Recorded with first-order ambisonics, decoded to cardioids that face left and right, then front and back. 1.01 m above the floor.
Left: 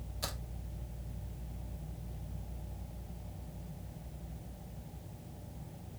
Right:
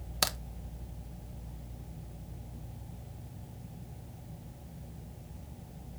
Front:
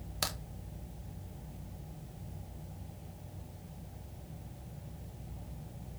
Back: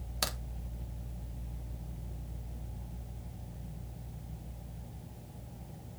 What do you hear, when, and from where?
0.2 s a crack: 95° right, 1.0 m